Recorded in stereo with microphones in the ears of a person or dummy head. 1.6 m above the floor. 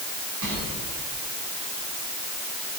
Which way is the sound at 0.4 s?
80° right.